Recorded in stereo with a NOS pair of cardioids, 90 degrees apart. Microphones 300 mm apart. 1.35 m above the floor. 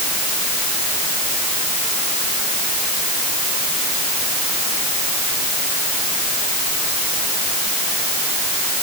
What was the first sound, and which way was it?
Only background noise.